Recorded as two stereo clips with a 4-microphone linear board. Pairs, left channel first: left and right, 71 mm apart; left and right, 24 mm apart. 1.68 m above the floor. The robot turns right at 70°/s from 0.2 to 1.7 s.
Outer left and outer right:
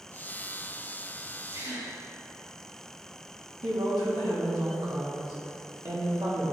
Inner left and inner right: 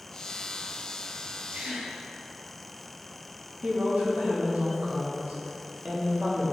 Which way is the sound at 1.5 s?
65° right (ahead or behind).